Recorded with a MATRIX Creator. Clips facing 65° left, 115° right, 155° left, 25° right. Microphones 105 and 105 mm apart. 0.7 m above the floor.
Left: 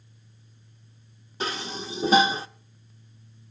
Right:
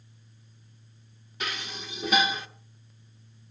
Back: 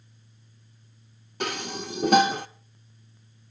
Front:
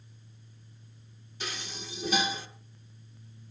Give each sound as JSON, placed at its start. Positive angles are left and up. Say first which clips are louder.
{"t": 1.4, "sound": "dishes clattering", "louder": "left 5 dB, back 10 dB", "azimuth_deg": 125, "distance_m": 1.0}